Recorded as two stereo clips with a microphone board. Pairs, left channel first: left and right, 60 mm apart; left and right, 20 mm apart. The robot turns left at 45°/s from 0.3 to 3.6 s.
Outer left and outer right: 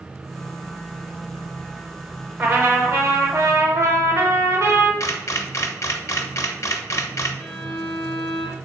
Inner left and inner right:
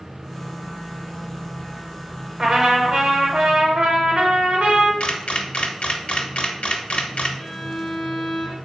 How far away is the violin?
About 1.2 m.